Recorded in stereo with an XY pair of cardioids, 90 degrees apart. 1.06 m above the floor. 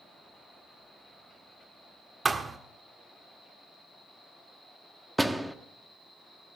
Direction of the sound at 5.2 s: 10° right.